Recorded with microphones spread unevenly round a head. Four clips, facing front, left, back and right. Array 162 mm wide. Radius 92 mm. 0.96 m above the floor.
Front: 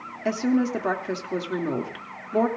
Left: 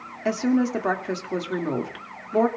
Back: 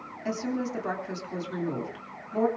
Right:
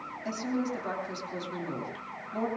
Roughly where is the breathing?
No breathing in this recording.